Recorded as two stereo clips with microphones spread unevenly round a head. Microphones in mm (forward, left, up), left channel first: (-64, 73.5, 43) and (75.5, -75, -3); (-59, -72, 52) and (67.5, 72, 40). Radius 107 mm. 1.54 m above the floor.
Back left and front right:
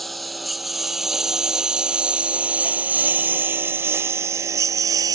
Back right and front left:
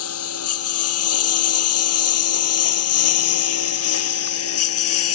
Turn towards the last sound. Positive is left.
turn(degrees=-125)